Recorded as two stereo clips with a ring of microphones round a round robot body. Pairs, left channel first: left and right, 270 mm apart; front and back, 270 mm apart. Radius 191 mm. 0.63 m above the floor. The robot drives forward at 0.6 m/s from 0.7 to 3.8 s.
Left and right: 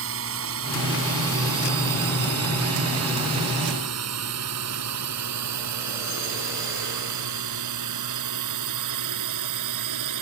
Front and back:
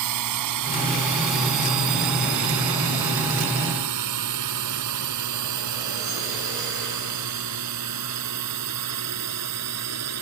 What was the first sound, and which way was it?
A drone, 145° right.